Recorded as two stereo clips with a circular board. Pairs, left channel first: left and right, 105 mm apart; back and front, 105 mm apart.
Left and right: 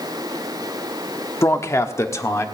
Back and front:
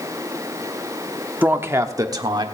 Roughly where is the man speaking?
Ahead left.